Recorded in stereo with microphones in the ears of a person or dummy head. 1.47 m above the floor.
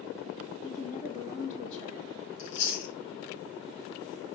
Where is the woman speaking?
40° left (ahead or behind), 3 m.